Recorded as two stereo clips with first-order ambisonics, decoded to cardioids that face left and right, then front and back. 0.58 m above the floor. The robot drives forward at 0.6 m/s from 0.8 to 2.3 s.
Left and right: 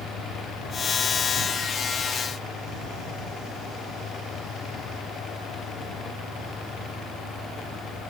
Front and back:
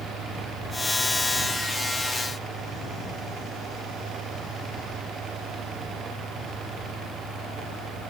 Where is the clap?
I don't hear a clap.